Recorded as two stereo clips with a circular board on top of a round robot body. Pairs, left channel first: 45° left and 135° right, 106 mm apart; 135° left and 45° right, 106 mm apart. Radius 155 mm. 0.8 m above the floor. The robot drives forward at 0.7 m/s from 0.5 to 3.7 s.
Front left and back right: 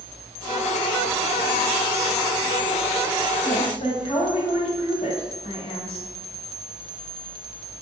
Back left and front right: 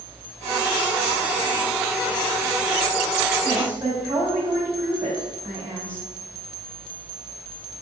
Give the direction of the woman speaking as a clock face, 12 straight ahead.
11 o'clock.